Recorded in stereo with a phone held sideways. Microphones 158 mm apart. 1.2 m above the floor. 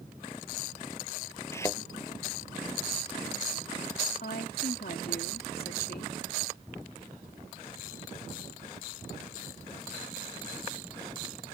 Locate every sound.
1.5 s a thud: 15° left (ahead or behind)
4.2 s a woman speaking: 80° left